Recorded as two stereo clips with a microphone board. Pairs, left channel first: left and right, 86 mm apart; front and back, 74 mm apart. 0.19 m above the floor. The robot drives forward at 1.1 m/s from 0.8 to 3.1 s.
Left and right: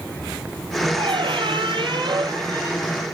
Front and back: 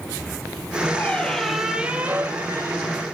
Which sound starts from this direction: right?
A squeak, at 1.0 s.